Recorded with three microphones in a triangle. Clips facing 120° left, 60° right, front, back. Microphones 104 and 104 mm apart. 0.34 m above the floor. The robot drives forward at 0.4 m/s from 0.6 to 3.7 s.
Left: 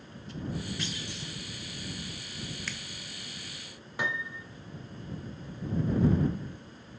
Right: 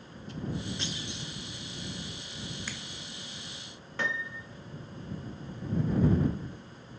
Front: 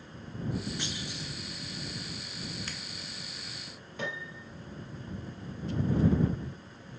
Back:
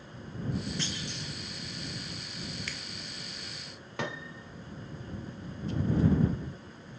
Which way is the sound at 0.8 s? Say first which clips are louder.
Even, back 1 dB; 50° right.